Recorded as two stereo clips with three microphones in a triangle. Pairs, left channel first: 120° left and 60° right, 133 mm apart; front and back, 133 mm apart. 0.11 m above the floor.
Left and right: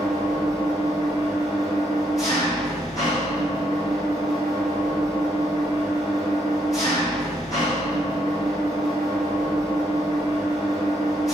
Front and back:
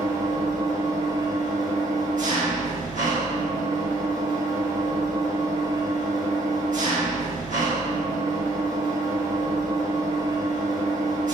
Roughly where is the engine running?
Behind.